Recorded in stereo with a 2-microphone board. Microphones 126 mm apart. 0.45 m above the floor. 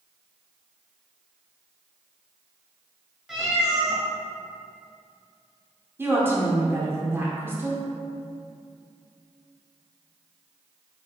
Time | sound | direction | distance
3.3 | a cat meowing | 5° right (ahead or behind) | 1.7 m
6.0 | a woman speaking | 20° right (ahead or behind) | 0.8 m